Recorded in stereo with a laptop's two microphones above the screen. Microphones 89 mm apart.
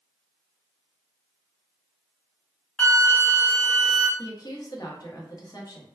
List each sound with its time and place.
2.8 s a flute: 10° left (ahead or behind), 0.6 m
4.2 s a woman speaking: 40° left (ahead or behind), 1.1 m